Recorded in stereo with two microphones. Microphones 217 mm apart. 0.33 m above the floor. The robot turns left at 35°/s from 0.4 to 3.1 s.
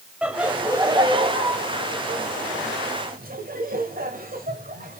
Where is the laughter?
5° right (ahead or behind), 1.5 m; by 5.0 s 40° right (ahead or behind), 1.5 m.